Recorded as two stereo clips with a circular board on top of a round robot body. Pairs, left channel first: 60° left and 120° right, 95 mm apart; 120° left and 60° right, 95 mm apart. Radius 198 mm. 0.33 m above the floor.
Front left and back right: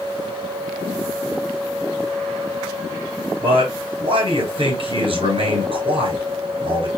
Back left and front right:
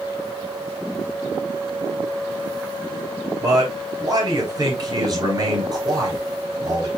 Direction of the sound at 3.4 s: 110° right.